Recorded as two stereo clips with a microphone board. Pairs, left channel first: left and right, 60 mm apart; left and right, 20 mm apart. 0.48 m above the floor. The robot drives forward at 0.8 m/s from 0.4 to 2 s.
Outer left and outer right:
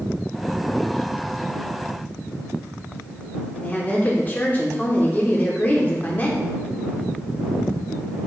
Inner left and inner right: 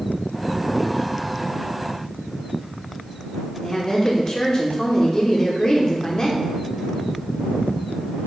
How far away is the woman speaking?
About 1.0 m.